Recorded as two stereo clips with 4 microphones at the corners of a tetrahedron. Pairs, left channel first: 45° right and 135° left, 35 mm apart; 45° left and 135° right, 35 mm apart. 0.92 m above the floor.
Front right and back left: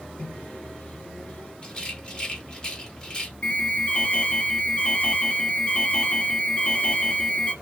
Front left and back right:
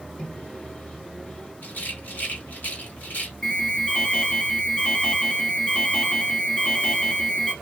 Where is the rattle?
15° left, 1.6 m.